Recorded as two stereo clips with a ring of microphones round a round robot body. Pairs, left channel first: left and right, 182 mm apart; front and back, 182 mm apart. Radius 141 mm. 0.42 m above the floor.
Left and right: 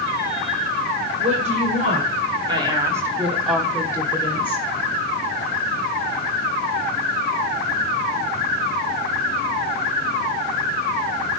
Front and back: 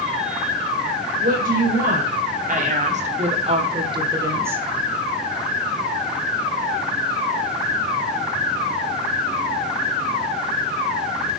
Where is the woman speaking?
140° right, 2.5 m; by 4.7 s 105° left, 1.4 m.